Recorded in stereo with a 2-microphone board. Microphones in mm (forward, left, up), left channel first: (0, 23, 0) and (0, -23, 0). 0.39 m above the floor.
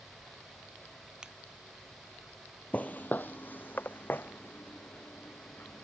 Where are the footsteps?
40° left (ahead or behind); by 5.8 s 50° left (ahead or behind).